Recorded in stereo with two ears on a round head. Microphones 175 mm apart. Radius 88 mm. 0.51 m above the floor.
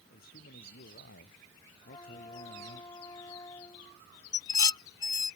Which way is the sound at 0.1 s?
55° left (ahead or behind).